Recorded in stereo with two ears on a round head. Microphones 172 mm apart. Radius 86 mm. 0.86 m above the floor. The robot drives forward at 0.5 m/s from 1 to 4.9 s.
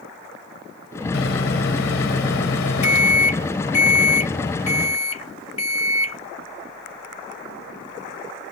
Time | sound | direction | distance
1.1 | a microwave | 70° left (ahead or behind) | ?